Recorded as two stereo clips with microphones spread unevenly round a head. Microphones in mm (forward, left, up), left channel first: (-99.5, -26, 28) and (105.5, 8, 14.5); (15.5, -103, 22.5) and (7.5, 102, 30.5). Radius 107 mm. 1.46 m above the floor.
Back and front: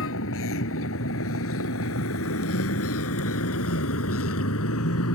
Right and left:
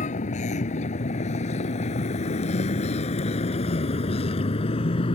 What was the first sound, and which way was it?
A vehicle, 145° right.